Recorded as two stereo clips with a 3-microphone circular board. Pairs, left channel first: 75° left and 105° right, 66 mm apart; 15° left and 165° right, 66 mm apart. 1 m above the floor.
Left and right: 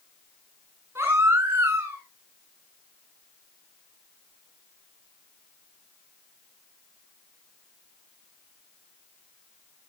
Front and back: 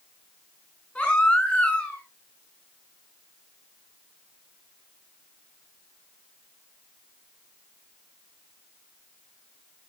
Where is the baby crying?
50° right, 6 m.